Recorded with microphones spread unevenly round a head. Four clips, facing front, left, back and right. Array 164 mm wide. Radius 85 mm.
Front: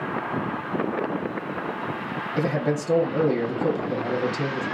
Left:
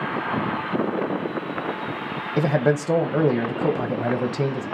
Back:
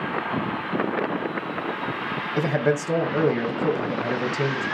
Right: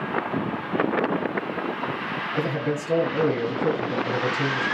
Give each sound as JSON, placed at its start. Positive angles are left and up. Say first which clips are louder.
{"t": 2.4, "sound": "a man speaking", "louder": "left 7 dB, back 2 dB", "azimuth_deg": 100, "distance_m": 0.8}